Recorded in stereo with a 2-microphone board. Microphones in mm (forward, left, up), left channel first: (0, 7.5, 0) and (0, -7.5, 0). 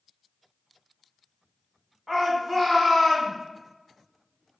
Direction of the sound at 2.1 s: 15° left (ahead or behind).